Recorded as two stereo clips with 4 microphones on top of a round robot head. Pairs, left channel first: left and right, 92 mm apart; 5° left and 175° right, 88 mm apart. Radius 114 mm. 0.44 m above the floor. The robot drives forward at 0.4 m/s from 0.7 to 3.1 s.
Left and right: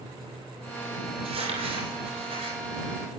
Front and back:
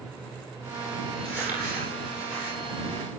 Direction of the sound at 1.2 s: 105° right.